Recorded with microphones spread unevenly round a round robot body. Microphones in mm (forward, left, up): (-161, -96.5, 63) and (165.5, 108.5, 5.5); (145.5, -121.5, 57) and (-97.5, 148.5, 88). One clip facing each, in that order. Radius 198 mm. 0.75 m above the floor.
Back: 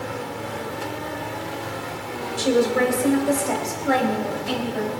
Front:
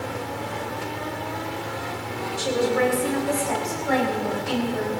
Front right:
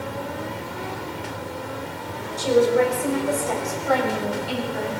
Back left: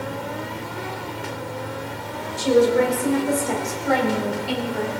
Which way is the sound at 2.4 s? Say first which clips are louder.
Back 3 dB, back left 1 dB; 160° right.